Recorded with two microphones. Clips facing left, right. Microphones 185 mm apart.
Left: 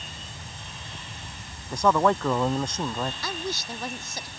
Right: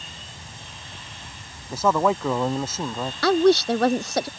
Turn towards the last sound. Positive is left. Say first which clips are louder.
# right 17 dB
turn(degrees=-75)  # may be behind; listen again after turning